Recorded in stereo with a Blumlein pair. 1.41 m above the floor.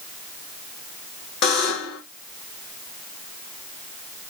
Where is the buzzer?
35° left, 1.6 m.